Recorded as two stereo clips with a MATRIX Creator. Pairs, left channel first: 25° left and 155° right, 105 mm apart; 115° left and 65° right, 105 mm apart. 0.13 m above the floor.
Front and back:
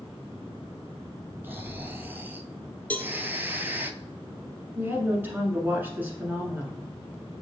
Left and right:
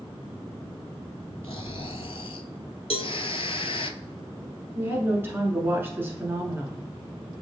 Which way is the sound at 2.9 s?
95° left.